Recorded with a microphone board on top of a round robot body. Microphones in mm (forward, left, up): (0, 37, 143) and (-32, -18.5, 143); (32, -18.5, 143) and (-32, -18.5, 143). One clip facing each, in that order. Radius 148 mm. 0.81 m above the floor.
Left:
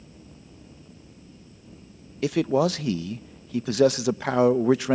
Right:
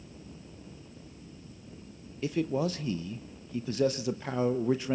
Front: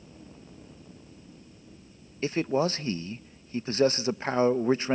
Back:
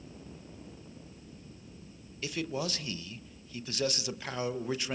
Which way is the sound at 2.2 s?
55° left.